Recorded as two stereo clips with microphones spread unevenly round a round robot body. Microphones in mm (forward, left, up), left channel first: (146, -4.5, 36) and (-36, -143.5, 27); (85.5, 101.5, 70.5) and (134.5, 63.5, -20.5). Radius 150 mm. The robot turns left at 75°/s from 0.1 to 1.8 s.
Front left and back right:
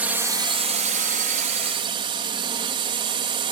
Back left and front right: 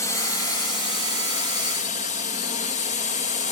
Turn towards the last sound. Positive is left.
turn(degrees=165)